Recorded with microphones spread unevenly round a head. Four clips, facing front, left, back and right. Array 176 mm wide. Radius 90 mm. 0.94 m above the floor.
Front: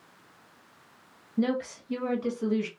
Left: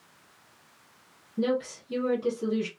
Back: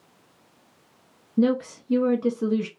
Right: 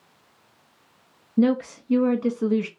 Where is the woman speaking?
130° right, 1.2 m.